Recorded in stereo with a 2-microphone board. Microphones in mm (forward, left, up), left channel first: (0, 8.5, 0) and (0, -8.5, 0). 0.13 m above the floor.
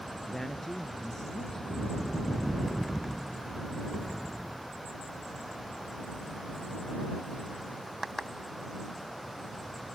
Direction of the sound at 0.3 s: 25° left (ahead or behind).